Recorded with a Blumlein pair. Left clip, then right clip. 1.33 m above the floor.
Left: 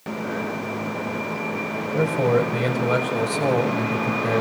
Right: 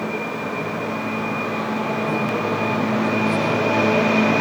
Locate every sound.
1.9 s a man speaking: 55° left, 6.5 m